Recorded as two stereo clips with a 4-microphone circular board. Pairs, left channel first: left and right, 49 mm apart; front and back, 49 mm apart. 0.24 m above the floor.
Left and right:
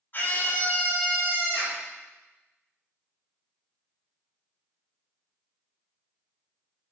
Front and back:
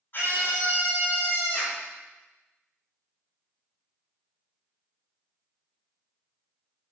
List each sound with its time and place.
0.1 s a scream: 40° left, 9.5 m; by 1.8 s 50° left, 11 m